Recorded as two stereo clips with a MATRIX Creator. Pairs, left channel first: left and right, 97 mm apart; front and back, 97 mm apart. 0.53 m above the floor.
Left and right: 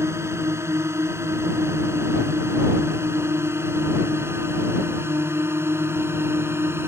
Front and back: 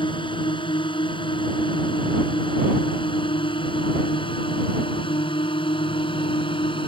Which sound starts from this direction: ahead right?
A drone, at 0.0 s.